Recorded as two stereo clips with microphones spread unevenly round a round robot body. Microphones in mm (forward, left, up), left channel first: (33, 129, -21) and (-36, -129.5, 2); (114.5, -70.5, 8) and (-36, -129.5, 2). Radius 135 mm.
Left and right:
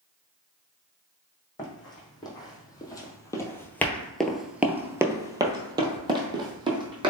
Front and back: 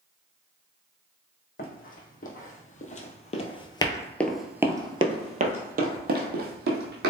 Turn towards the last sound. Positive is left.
turn(degrees=-175)